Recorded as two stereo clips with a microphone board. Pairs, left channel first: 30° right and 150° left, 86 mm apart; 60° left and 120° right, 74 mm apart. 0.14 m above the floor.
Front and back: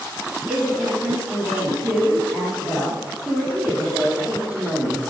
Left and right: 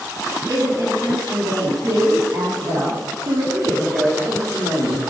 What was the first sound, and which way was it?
A woman speaking, 130° right.